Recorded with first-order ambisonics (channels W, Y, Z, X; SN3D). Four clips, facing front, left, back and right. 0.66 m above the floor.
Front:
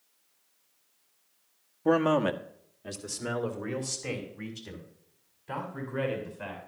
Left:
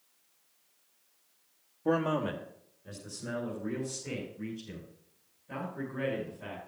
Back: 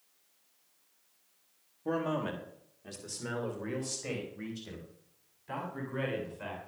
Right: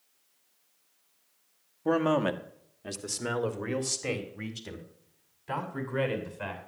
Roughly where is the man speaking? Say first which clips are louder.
Right 3 dB, front 9 dB; ahead.